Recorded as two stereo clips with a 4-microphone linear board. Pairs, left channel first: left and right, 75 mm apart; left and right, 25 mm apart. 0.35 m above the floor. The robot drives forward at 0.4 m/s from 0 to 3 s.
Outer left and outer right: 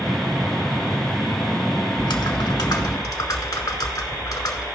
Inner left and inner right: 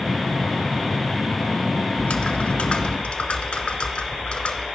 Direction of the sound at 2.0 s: 85° left.